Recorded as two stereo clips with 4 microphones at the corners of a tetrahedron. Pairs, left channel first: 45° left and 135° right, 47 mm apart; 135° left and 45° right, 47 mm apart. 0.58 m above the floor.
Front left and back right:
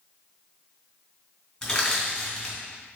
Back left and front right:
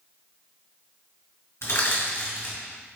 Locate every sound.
1.6 s crushing: 120° left, 1.9 m